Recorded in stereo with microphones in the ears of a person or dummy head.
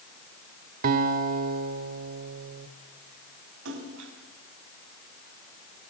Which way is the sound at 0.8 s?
50° right (ahead or behind).